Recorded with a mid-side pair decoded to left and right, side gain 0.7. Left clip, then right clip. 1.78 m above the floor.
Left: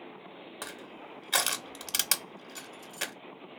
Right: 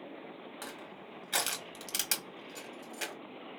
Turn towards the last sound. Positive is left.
turn(degrees=25)